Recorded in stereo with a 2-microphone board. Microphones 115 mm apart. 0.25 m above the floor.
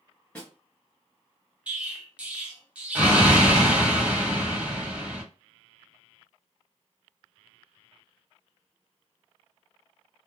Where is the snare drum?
15° left (ahead or behind), 2.0 m.